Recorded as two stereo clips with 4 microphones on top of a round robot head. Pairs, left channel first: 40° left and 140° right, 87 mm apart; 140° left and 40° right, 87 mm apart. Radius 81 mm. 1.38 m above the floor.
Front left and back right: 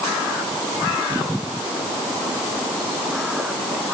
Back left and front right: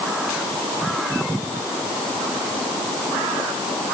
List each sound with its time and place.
Only background noise.